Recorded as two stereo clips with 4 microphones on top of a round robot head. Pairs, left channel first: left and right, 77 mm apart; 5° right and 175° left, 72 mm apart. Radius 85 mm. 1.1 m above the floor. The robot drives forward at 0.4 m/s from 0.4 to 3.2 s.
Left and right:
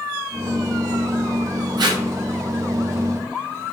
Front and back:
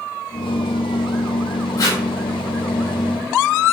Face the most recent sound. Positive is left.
turn(degrees=-85)